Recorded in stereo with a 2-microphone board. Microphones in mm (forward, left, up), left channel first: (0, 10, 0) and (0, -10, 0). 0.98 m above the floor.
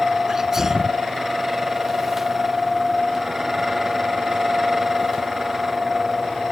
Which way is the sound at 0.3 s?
20° right (ahead or behind).